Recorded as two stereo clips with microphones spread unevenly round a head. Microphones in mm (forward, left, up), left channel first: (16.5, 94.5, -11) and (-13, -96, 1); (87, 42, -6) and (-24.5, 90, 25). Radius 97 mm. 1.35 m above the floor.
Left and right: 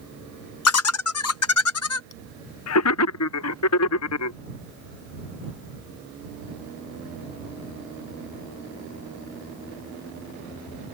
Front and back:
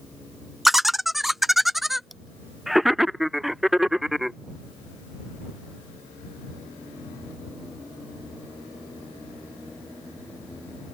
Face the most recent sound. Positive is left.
turn(degrees=70)